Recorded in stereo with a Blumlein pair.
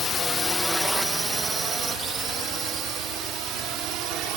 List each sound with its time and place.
0.0 s a drone: 25° left; by 4.4 s 35° right